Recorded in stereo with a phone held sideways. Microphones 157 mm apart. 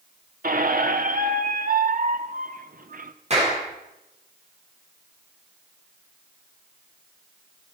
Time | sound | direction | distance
0.4 | a squeak | 65° right (ahead or behind) | 1.0 m
3.3 | a clap | 45° right (ahead or behind) | 7 m